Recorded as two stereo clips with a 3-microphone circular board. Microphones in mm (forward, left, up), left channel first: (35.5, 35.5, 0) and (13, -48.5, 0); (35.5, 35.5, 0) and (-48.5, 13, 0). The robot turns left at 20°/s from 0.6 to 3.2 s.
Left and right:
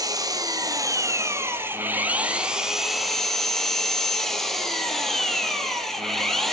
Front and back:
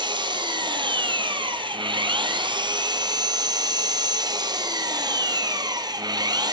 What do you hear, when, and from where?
0.0 s an engine running: 145° right, 1.5 m; by 6.5 s 160° left, 1.5 m